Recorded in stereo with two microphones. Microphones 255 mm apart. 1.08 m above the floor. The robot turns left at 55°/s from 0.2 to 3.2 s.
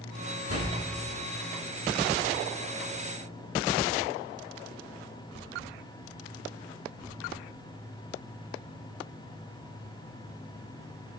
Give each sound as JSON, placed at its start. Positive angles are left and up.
{"t": 0.5, "sound": "a door slam", "side_deg": -75, "distance_m": 6.0}